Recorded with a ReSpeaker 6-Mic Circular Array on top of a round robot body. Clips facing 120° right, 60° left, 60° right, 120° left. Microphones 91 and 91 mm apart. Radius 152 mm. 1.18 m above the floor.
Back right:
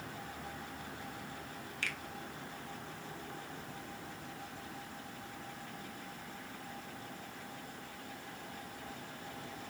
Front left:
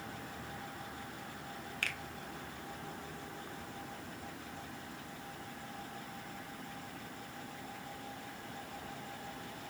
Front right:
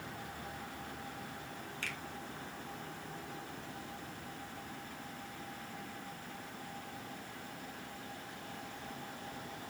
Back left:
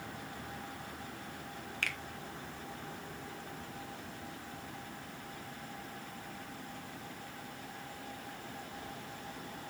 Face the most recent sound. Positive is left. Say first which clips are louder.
# even, back left 5 dB
turn(degrees=95)